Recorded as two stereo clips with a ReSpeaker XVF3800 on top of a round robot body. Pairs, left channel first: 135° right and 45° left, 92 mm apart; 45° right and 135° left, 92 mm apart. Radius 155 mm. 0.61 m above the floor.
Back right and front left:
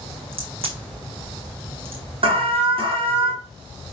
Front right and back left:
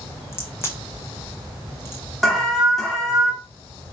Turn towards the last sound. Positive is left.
turn(degrees=45)